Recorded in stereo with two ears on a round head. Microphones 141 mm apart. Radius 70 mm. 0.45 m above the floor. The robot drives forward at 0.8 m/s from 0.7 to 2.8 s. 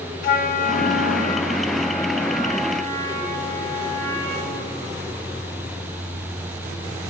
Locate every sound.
0.2 s a flute: 60° left (ahead or behind), 0.5 m; by 4.8 s 15° left (ahead or behind), 1.6 m